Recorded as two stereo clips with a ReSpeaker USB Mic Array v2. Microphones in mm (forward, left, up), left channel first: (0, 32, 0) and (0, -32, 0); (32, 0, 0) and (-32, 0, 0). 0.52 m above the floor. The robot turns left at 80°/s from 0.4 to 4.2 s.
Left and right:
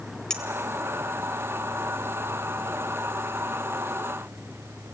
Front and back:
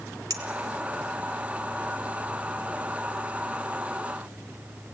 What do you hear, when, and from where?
0.3 s a clink: 170° left, 1.2 m; by 0.4 s 165° left, 1.2 m